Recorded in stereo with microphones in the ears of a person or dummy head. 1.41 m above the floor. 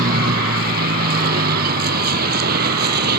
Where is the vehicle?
55° right (ahead or behind); by 3.2 s 60° right (ahead or behind).